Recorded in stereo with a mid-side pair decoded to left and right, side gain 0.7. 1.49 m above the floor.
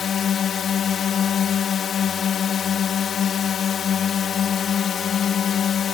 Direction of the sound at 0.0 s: 40° left.